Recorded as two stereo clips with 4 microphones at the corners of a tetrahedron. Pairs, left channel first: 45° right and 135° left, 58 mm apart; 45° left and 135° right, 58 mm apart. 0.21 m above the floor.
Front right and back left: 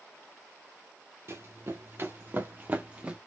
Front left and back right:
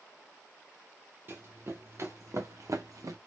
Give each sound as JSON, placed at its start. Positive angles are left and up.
{"t": 1.3, "sound": "running footsteps", "azimuth_deg": 175, "distance_m": 1.7}